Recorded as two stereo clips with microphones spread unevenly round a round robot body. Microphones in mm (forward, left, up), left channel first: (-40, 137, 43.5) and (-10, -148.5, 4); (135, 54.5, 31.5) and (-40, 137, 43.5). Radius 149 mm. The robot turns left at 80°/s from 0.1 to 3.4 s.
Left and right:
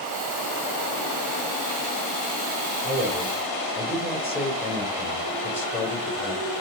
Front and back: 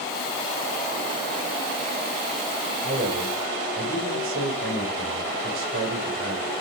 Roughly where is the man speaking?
Behind right.